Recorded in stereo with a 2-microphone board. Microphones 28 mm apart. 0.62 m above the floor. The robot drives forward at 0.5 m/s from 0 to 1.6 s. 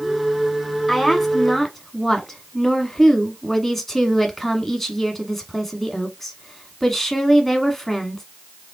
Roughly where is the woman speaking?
Centre.